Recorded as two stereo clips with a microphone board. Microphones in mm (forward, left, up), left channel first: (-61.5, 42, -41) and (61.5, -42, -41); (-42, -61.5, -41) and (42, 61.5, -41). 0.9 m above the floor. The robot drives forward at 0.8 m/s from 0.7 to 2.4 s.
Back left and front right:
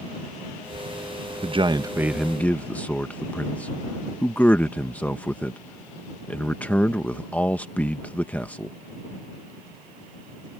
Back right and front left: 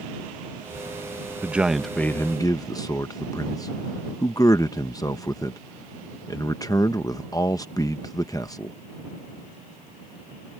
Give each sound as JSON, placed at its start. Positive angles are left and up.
{"t": 1.4, "sound": "a man speaking", "azimuth_deg": -15}